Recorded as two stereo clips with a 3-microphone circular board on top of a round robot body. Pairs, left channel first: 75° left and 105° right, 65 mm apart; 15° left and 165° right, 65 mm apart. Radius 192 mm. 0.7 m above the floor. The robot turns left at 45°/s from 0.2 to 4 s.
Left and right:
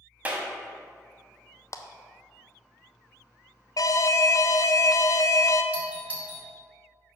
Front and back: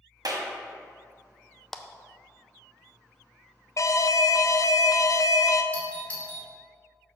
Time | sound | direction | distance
0.2 | a clap | 170° right | 1.6 m
1.7 | a clap | 100° left | 0.7 m
3.8 | an alarm | 55° left | 0.6 m
5.7 | a doorbell | 45° right | 2 m